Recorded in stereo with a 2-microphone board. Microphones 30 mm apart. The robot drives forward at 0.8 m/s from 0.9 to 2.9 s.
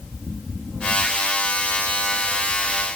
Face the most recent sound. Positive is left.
No sound to turn to.